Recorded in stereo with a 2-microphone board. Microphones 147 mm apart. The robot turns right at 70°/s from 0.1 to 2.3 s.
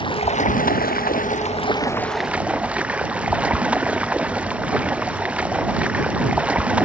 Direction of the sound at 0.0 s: 35° left.